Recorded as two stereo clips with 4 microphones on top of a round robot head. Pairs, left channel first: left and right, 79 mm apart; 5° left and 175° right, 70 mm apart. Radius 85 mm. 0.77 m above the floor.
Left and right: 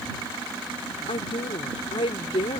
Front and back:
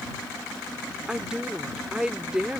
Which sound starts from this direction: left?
A woman speaking, at 1.1 s.